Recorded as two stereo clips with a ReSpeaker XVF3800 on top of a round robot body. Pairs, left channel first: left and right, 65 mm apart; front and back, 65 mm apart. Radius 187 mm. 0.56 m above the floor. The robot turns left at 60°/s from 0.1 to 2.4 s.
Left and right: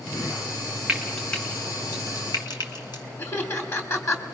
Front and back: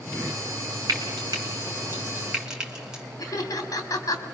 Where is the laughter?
40° left, 2.5 m.